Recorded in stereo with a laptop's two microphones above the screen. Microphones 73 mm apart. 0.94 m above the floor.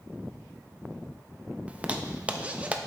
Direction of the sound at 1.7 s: 20° right (ahead or behind).